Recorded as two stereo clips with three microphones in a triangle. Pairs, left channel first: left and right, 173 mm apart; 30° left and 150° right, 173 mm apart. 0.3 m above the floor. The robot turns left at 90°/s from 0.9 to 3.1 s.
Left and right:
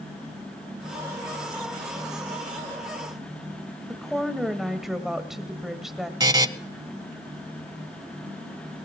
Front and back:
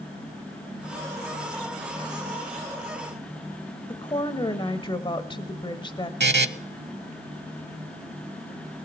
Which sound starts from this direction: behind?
A buzzer, at 6.2 s.